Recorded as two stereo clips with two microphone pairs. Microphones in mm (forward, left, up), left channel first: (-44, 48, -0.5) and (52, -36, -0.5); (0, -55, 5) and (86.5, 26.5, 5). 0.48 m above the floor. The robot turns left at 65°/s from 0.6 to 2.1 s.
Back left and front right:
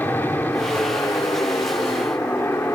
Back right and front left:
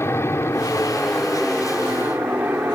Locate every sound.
0.0 s an aircraft: 170° right; by 2.8 s 95° left